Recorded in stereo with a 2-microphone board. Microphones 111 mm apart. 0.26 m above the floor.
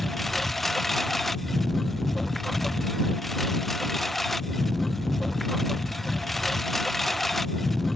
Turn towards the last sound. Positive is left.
turn(degrees=0)  # may be behind; listen again after turning